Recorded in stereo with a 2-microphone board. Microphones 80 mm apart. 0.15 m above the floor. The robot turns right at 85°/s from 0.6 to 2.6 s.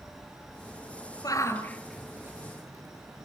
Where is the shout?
50° left (ahead or behind), 3 m; by 3.3 s 45° right (ahead or behind), 3 m.